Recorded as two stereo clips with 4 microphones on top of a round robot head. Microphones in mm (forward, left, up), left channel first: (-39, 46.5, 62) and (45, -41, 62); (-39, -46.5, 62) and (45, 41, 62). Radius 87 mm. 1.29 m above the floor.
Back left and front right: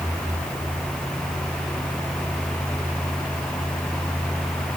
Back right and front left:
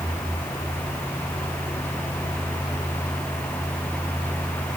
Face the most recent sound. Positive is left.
No sound to turn to.